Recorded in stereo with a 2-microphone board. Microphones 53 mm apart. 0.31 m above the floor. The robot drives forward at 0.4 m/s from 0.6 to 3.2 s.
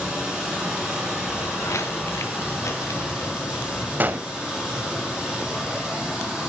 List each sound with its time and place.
0.0 s running water: 10° right (ahead or behind), 9 m
1.3 s footsteps: 70° left (ahead or behind), 1.2 m; by 3.9 s 80° left, 2.5 m
4.0 s a gunshot: 40° right (ahead or behind), 0.6 m